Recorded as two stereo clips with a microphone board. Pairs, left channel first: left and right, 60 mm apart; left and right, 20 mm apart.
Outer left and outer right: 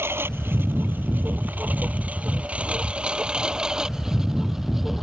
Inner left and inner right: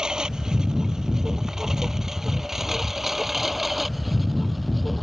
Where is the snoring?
I don't hear snoring.